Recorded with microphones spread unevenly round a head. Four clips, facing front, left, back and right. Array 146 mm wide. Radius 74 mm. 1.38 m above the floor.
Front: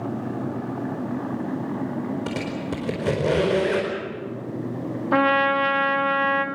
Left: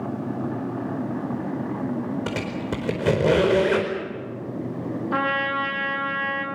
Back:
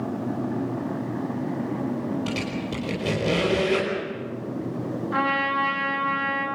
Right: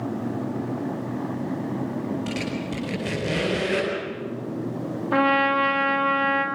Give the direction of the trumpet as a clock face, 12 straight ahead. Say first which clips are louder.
Right 6 dB, front 6 dB; 1 o'clock.